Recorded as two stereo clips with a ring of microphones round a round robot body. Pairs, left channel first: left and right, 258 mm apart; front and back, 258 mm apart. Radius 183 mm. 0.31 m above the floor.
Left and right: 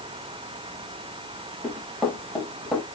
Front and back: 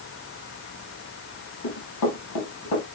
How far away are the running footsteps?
About 7 m.